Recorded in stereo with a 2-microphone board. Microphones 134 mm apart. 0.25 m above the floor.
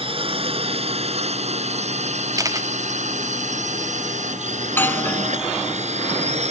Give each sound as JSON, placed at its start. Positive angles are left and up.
{"t": 0.0, "sound": "a drone", "side_deg": -45}
{"t": 2.4, "sound": "a camera shutter", "side_deg": -25}
{"t": 4.6, "sound": "a doorbell", "side_deg": 15}